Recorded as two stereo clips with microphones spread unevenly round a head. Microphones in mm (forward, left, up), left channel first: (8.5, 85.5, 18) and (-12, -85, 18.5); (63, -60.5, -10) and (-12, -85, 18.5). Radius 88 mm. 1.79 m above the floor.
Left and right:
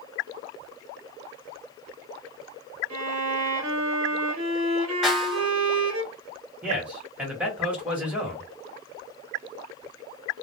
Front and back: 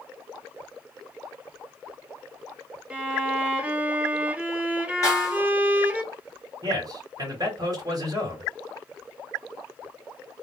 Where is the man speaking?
Straight behind, 1.2 m.